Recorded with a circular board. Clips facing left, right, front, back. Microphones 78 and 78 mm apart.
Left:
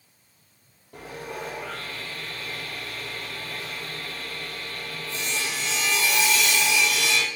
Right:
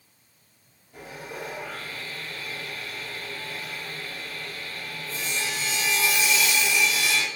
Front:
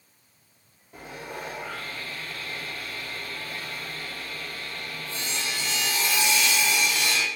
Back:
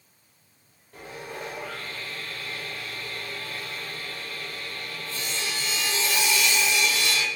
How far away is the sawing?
About 2 m.